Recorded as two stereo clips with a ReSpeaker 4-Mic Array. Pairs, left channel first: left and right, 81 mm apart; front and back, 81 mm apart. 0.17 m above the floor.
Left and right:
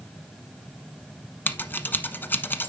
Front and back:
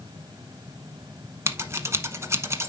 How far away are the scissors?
About 1.0 m.